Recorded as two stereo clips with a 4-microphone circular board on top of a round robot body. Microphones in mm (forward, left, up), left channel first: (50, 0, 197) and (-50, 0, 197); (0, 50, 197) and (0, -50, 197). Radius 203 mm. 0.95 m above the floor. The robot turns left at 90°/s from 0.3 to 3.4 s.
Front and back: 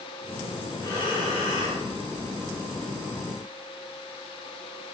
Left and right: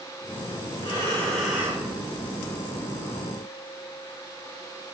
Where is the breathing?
60° left, 4.5 m; by 1.9 s 30° right, 4.5 m.